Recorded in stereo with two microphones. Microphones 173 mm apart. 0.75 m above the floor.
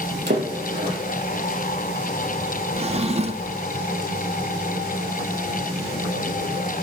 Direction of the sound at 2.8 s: 40° right (ahead or behind).